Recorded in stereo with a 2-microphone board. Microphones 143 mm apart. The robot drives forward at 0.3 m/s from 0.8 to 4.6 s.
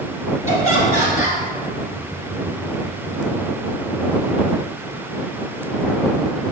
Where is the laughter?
20° right (ahead or behind), 1.8 m.